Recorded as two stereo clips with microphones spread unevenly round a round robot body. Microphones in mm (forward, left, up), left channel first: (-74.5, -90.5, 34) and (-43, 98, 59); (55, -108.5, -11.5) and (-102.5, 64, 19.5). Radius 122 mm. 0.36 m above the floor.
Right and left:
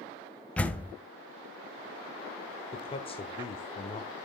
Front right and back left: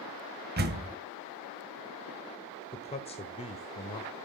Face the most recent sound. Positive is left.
turn(degrees=-80)